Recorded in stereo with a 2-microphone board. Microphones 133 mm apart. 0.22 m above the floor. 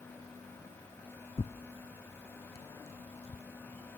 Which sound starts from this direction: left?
Tearing paper, at 1.4 s.